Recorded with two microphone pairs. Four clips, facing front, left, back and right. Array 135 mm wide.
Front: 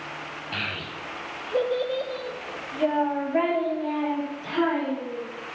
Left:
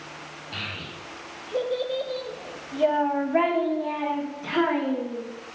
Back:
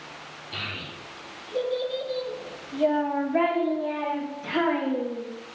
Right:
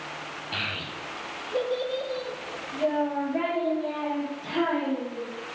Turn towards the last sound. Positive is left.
turn(degrees=100)